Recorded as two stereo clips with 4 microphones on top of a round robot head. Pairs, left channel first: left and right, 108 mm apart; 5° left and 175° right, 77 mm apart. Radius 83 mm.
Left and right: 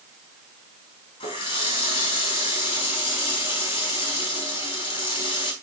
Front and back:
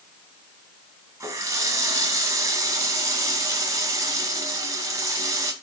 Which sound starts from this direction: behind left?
A running tap, at 1.2 s.